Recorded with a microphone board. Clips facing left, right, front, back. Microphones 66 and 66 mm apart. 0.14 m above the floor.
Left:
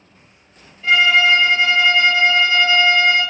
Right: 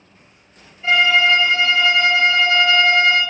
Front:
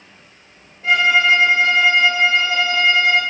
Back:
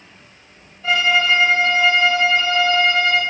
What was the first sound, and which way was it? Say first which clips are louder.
A violin: left 1 dB, front 2 dB; 10° right.